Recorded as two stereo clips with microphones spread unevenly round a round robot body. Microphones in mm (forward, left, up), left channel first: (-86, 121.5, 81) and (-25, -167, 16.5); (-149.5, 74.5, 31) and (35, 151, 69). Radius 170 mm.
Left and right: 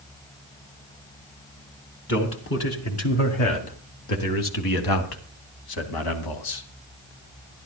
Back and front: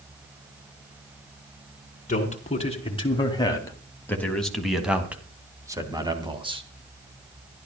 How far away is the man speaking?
About 3 m.